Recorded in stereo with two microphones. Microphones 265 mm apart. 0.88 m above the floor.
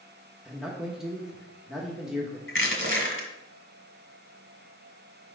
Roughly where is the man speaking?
Centre.